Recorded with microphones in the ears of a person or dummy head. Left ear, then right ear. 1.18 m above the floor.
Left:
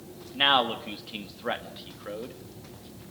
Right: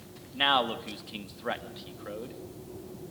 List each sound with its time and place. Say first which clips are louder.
0.3 s a man speaking: left 3 dB; centre (ahead or behind), 1.8 m